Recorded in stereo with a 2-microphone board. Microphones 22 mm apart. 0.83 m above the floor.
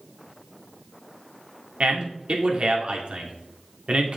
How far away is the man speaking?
About 1.9 m.